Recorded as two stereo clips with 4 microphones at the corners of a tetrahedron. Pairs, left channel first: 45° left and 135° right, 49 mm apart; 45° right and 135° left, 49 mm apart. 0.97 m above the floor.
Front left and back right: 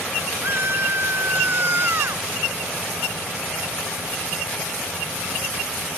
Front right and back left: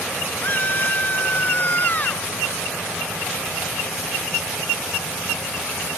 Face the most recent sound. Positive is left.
turn(degrees=-95)